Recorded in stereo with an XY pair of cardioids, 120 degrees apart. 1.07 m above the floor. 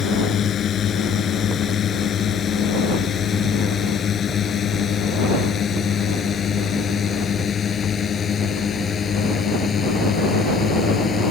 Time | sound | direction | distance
0.0 | a drone | 50° left | ?